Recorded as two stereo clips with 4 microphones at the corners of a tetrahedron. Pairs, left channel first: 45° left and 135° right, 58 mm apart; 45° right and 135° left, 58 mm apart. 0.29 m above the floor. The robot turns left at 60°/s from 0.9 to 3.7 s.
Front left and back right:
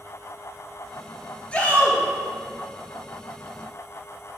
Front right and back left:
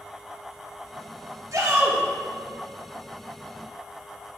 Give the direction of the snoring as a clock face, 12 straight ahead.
No snoring in this recording.